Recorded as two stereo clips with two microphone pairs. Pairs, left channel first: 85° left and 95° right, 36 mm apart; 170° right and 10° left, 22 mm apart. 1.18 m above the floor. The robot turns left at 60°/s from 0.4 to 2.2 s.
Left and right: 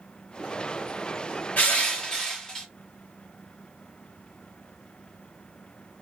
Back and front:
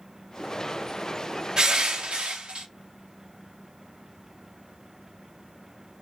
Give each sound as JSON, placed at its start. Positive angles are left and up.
{"t": 1.6, "sound": "crushing", "azimuth_deg": 55, "distance_m": 0.9}